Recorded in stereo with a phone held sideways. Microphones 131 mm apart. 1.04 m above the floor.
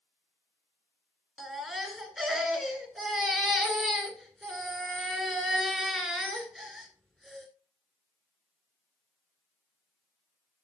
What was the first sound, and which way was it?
A baby crying, 5° left (ahead or behind).